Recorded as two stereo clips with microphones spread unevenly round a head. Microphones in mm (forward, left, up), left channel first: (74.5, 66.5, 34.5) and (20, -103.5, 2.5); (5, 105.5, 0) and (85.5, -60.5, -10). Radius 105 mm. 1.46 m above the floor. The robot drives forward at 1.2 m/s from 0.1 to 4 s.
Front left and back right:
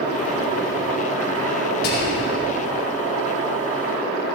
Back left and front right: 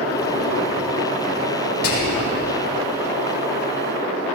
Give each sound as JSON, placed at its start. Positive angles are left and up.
{"t": 1.8, "sound": "whispering", "azimuth_deg": 125, "distance_m": 3.0}